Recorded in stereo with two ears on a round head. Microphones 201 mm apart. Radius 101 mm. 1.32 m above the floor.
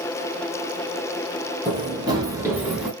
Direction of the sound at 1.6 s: 20° right (ahead or behind).